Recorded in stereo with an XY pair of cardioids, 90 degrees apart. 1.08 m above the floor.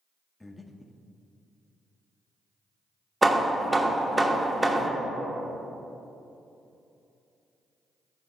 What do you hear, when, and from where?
0.4 s breathing: 15° left, 0.6 m
3.2 s hammering: 15° right, 0.9 m